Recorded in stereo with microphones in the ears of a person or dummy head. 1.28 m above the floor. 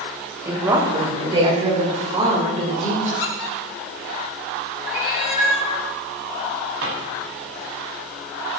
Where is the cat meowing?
5° right (ahead or behind), 5 m.